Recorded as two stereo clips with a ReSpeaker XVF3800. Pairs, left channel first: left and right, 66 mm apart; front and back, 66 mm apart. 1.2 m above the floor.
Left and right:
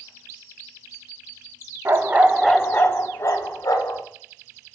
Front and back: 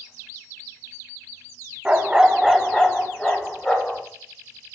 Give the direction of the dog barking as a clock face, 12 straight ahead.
4 o'clock.